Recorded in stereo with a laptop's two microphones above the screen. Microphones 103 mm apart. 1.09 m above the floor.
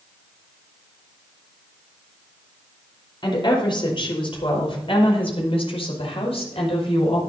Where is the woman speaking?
50° left (ahead or behind), 5.5 m; by 7.2 s 80° left, 6.5 m.